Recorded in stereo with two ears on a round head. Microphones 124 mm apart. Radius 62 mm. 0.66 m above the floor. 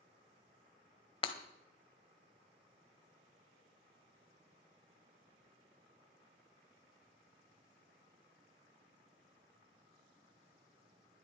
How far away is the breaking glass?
About 1.0 m.